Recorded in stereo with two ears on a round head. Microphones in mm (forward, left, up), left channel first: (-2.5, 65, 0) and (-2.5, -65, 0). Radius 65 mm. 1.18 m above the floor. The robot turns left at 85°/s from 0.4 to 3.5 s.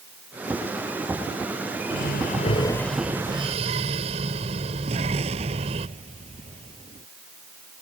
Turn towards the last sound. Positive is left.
turn(degrees=-45)  # may be behind; listen again after turning